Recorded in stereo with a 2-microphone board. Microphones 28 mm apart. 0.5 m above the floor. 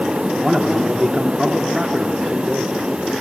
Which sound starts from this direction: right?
A man speaking, at 0.3 s.